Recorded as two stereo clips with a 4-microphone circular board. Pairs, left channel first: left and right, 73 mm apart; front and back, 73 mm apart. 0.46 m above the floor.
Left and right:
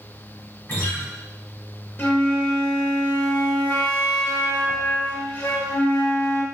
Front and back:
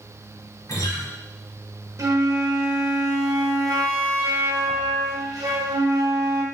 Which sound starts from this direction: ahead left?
A guitar, at 0.7 s.